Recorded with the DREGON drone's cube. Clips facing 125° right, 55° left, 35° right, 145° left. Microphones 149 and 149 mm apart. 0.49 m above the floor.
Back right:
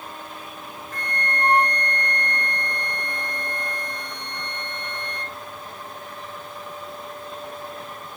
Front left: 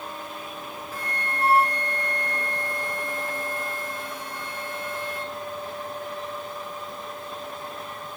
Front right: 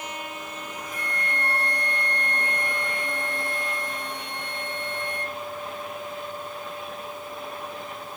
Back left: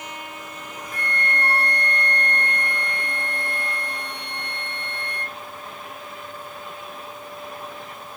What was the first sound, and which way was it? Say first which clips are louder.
A flute: back right 4 dB, back left 5 dB; 140° left.